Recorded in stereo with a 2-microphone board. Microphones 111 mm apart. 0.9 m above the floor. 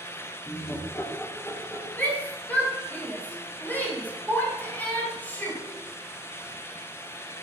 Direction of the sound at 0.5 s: 15° left (ahead or behind).